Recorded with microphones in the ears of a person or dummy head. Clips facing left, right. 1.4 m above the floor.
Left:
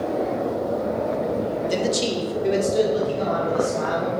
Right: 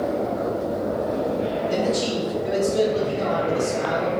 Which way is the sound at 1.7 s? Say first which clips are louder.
Even; 55° left (ahead or behind).